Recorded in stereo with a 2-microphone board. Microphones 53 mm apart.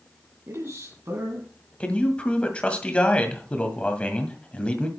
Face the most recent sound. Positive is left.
turn(degrees=20)  # may be behind; listen again after turning